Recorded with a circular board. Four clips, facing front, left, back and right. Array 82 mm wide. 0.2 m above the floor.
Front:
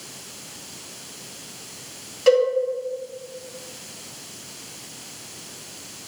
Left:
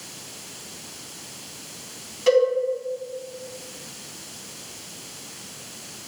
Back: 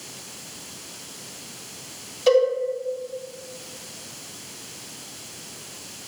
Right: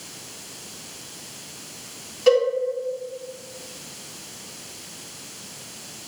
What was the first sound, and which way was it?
A cowbell, 15° right.